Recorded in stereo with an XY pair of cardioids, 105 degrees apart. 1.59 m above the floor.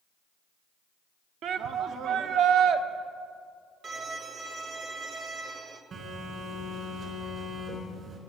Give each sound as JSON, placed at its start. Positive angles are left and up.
{"t": 1.4, "sound": "a shout", "azimuth_deg": -70, "distance_m": 0.9}
{"t": 3.8, "sound": "a violin", "azimuth_deg": -55, "distance_m": 1.6}
{"t": 5.9, "sound": "a phone buzzing", "azimuth_deg": -55, "distance_m": 3.5}